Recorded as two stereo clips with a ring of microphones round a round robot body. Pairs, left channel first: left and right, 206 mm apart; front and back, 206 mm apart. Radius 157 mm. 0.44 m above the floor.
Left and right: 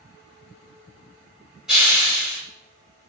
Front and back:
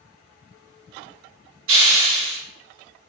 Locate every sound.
1.7 s a hiss: straight behind, 1.2 m